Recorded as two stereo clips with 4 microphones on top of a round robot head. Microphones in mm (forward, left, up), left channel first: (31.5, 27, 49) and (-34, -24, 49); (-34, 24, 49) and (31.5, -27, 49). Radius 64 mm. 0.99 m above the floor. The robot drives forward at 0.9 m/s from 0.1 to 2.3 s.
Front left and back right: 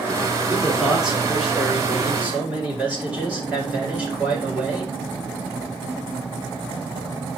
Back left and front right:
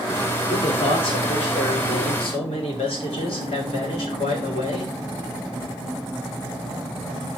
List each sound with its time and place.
0.5 s a man speaking: 130° left, 3.5 m; by 4.9 s 145° left, 5 m